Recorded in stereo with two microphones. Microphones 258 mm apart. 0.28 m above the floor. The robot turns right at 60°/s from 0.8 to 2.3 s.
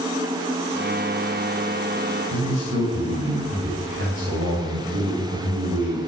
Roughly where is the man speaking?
Right.